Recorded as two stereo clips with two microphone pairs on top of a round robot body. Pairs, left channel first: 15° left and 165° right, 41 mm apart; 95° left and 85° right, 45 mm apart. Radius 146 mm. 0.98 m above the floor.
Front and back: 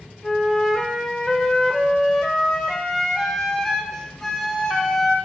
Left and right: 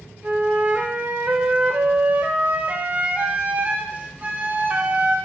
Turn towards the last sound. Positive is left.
turn(degrees=-55)